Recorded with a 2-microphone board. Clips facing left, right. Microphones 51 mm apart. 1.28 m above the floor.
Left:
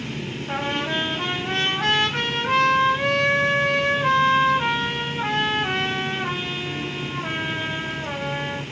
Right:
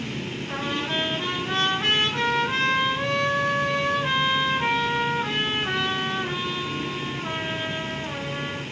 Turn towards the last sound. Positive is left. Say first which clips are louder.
# left 3 dB
turn(degrees=65)  # may be behind; listen again after turning